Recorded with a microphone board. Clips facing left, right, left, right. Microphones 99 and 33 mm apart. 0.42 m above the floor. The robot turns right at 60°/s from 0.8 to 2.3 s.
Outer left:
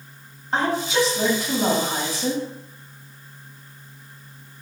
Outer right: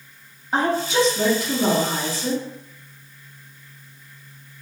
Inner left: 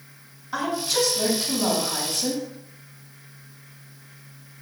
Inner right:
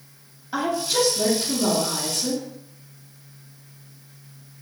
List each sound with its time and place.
0.5 s a woman speaking: 10° right, 2 m; by 2.4 s 80° left, 2 m